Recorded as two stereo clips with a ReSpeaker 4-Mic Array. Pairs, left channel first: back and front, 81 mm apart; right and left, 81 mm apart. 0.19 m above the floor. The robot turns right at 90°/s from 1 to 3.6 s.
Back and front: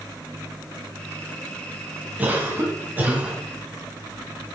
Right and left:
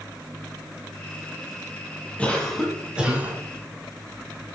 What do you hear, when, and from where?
2.2 s a cough: 40° right, 1.4 m; by 3.4 s 65° left, 1.4 m